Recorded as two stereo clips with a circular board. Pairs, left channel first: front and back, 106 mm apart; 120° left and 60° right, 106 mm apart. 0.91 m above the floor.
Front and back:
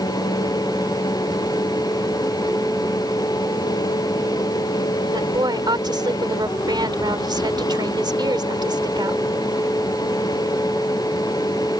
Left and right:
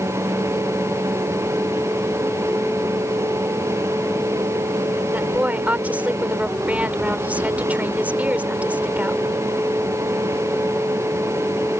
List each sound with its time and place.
5.1 s a woman speaking: 135° right